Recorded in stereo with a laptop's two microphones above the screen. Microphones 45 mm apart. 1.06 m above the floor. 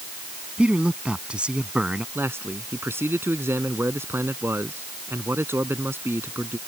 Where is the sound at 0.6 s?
25° right (ahead or behind).